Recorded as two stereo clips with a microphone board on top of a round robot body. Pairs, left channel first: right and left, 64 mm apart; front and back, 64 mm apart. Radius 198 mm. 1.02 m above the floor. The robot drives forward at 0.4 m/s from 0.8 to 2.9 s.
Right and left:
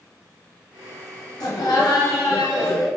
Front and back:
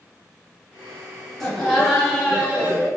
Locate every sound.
1.4 s laughter: 85° right, 1.3 m; by 2.9 s 115° right, 1.4 m